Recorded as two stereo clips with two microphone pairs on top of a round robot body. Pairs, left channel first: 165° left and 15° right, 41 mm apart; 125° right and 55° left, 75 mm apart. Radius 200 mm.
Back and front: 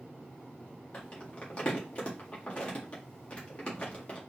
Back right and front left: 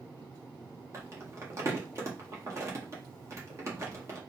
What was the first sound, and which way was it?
Crumpling, 105° left.